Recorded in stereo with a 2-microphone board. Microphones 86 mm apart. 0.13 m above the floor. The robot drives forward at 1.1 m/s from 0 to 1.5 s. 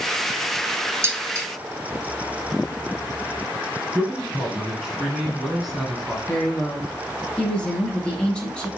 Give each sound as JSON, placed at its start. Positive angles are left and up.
{"t": 1.0, "sound": "dishes clattering", "side_deg": -30, "distance_m": 1.0}
{"t": 4.0, "sound": "a man speaking", "side_deg": 0, "distance_m": 1.1}
{"t": 6.3, "sound": "a woman speaking", "side_deg": 10, "distance_m": 2.5}